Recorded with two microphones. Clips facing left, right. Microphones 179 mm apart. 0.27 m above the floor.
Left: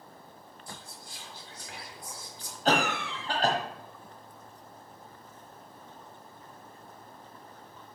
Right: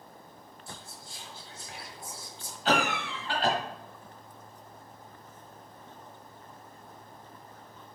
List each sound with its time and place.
0.7 s whispering: 30° right (ahead or behind), 1.2 m
2.6 s a cough: 40° left (ahead or behind), 1.3 m